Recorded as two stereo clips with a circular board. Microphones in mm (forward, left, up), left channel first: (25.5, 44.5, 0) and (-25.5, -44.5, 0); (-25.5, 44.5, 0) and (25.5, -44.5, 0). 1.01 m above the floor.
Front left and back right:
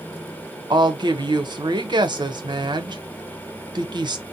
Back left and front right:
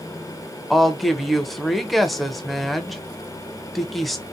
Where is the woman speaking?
150° right, 0.6 m.